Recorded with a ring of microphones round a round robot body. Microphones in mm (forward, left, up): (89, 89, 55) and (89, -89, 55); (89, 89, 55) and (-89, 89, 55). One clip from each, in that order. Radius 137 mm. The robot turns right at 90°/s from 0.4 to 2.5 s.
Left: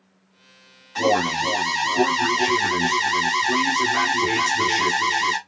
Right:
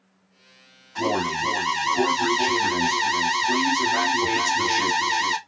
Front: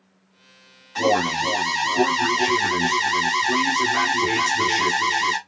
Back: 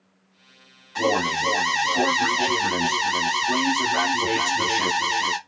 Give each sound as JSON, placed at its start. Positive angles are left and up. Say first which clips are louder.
{"t": 0.9, "sound": "an alarm", "louder": "left 4 dB, front 2 dB", "azimuth_deg": 90, "distance_m": 1.4}